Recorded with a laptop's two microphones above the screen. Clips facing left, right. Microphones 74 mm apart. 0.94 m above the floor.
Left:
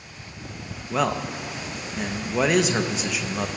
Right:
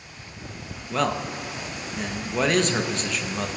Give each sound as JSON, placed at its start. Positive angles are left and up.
{"t": 0.9, "sound": "a man speaking", "side_deg": 5, "distance_m": 0.7}